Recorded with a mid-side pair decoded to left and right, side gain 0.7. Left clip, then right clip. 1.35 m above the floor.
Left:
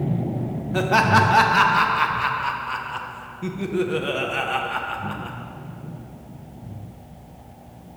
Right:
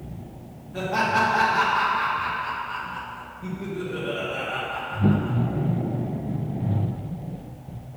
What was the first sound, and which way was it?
Laughter, 45° left.